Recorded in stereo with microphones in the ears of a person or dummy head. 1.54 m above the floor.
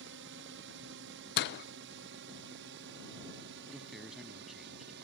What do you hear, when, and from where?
0.0 s a drone: 65° right (ahead or behind); by 5.0 s 60° right (ahead or behind)
1.4 s a door slam: 55° left (ahead or behind)
3.7 s a man speaking: centre (ahead or behind)